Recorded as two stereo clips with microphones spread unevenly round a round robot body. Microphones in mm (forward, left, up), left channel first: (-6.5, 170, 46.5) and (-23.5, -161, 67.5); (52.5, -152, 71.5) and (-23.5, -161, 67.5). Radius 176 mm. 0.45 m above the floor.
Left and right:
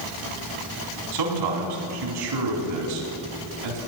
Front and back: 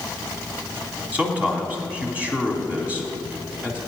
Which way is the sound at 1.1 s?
100° right.